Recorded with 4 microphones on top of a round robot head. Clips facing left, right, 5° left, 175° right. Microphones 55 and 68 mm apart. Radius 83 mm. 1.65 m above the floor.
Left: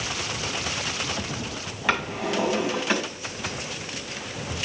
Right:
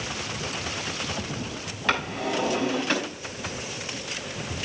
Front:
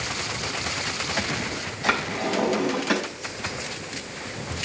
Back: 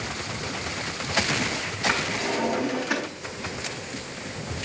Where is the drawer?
5° left, 6 m.